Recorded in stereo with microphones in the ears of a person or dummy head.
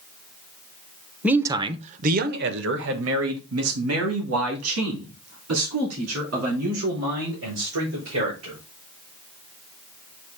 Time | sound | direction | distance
1.2 | a man speaking | 10° right (ahead or behind) | 0.8 m